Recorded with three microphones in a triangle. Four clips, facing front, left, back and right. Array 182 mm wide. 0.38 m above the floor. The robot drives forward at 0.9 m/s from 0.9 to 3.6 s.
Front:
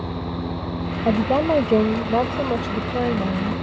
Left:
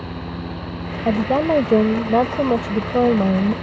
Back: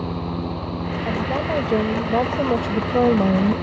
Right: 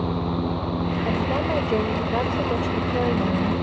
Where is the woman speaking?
55° left; by 3.5 s 135° left.